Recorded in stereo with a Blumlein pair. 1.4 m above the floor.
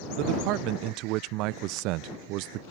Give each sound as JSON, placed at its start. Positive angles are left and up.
{"t": 0.2, "sound": "a man speaking", "azimuth_deg": -40}